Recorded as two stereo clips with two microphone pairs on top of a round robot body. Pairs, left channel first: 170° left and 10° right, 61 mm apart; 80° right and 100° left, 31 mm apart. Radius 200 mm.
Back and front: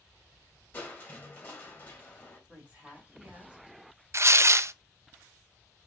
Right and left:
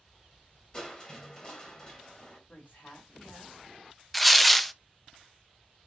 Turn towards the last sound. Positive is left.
turn(degrees=10)